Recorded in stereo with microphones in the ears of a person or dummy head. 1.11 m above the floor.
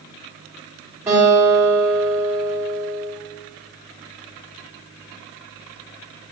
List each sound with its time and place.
1.1 s a guitar: 15° right (ahead or behind), 3 m